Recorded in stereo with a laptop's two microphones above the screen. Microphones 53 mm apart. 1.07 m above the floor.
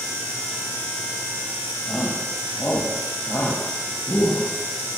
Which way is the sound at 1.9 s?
20° left (ahead or behind).